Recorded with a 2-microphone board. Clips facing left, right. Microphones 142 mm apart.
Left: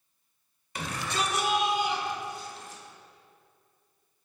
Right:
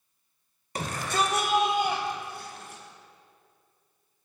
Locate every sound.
0.8 s a shout: 45° right (ahead or behind), 1.8 m; by 2.8 s 70° right (ahead or behind), 4.5 m